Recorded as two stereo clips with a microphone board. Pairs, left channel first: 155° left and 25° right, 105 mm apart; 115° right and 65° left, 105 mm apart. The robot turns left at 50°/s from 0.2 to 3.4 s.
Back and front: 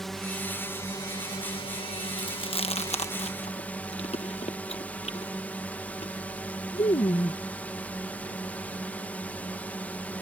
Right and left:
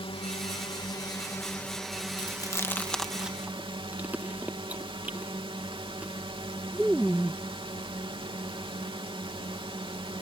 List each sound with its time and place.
0.0 s a drone: 115° right; by 10.2 s 85° left
2.2 s chewing: 155° right; by 7.4 s 140° left